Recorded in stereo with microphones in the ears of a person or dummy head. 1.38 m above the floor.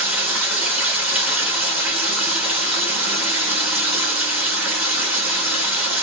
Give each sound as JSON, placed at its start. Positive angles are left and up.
{"t": 0.0, "sound": "running water", "side_deg": -5, "distance_m": 1.2}